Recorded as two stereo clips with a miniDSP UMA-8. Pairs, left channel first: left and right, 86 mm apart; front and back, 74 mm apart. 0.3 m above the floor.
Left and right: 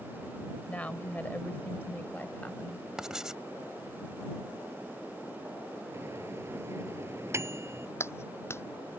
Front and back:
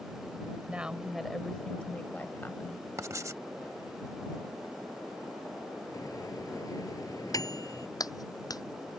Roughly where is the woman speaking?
Behind left.